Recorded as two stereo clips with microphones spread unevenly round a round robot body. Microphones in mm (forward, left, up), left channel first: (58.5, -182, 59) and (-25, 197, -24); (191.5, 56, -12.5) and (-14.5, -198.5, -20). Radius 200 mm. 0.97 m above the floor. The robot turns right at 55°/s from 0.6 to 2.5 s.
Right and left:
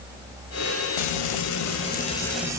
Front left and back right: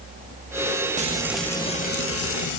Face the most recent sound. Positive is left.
turn(degrees=25)